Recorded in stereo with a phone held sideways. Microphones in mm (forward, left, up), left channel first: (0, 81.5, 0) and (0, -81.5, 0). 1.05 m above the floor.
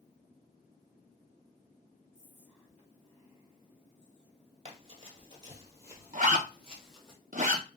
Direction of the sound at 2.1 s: 40° left (ahead or behind).